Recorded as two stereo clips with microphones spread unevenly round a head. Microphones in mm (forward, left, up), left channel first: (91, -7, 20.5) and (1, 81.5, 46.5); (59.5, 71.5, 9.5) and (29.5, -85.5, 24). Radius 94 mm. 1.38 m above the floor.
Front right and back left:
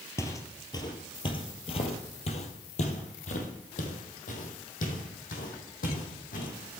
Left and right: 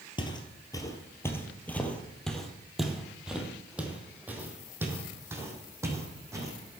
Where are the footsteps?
30° left, 1.7 m; by 6.5 s 35° right, 4 m.